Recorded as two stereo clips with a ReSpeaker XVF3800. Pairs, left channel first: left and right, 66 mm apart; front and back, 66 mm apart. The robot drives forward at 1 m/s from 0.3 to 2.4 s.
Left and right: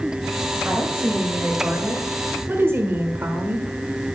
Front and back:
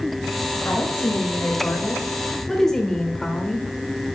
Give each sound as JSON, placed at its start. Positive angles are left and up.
{"t": 0.7, "sound": "a woman speaking", "azimuth_deg": -25, "distance_m": 2.5}